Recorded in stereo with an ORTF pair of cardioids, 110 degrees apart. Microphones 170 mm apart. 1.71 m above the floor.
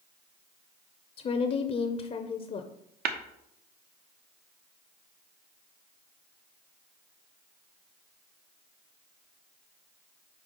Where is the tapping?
65° right, 1.0 m.